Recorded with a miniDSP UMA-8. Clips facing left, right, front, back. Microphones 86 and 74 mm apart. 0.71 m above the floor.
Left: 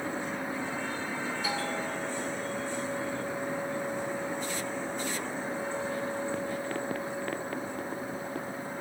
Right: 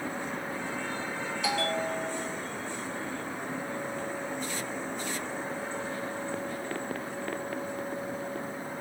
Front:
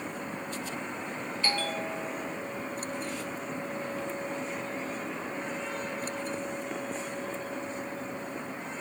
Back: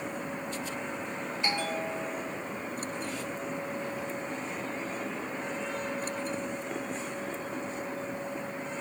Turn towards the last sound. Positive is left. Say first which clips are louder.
# right 7 dB, even
turn(degrees=-110)